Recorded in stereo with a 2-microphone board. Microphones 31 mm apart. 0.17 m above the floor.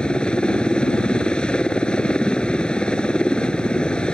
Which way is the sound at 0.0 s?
30° left (ahead or behind).